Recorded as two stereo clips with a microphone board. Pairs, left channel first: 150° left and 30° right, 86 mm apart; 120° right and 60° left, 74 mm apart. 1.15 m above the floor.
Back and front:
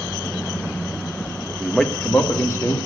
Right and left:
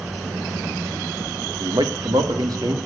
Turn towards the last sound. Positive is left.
turn(degrees=95)